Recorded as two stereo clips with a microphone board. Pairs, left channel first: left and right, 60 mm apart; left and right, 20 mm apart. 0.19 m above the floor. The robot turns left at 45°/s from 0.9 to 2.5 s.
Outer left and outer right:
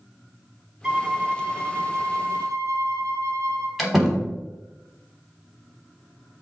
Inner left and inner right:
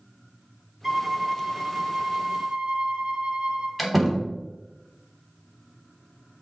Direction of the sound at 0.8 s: 15° right.